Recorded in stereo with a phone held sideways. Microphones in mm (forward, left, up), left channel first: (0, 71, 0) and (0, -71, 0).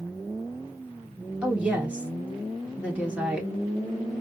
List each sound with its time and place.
1.4 s a woman speaking: 10° right (ahead or behind), 2 m